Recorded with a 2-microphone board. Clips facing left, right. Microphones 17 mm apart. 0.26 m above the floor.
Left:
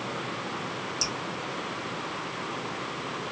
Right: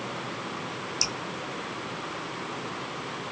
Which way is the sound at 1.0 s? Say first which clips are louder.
Right 2 dB; 30° right (ahead or behind).